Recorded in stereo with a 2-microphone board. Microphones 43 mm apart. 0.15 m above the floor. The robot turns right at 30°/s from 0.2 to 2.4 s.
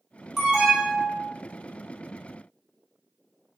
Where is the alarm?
10° right (ahead or behind), 1.5 m; by 1.3 s 20° right (ahead or behind), 1.5 m.